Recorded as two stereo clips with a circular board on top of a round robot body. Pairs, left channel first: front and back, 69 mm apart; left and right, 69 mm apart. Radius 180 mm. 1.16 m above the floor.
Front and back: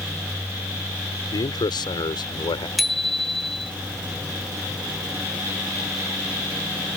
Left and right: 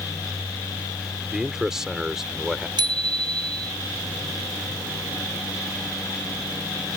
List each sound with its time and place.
1.3 s a man speaking: 10° right; by 2.7 s 5° right
2.8 s a bicycle bell: 90° right